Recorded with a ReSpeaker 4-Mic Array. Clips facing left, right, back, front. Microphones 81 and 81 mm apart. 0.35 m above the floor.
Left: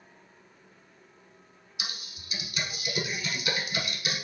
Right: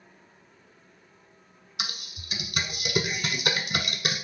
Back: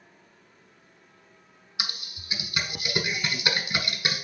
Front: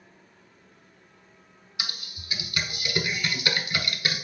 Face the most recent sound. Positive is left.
turn(degrees=-115)